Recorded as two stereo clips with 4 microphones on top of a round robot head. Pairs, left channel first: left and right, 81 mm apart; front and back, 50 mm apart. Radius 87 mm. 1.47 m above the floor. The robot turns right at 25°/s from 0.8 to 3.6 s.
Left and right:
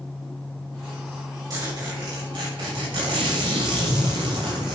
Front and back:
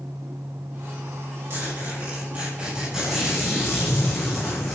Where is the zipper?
135° right, 7.5 m; by 4.8 s 85° right, 7.5 m.